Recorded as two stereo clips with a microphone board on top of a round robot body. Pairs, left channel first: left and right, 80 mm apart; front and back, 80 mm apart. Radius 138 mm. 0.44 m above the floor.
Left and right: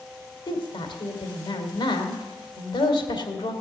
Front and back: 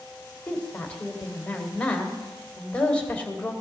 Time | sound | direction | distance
0.5 | a woman speaking | 75° left | 2.5 m